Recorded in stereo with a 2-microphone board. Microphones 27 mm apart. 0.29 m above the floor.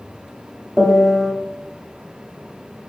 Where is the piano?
10° right (ahead or behind), 0.8 m.